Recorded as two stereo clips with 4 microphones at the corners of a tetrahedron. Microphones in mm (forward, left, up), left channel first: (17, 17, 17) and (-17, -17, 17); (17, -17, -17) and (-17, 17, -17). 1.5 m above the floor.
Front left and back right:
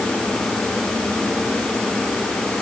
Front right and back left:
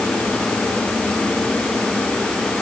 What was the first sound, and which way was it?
Only background noise.